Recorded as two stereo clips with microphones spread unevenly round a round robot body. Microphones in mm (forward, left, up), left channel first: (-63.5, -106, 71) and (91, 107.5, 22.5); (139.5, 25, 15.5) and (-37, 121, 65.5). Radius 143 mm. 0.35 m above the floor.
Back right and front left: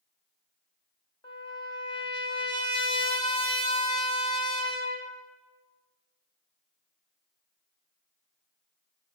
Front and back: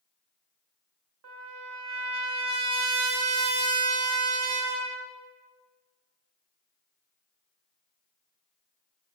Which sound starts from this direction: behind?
A trumpet, at 1.2 s.